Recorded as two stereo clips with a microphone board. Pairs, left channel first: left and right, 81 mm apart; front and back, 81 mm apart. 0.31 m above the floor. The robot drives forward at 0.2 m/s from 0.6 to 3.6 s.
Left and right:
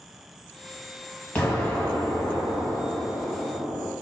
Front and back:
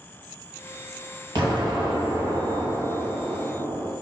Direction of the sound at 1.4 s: 165° left.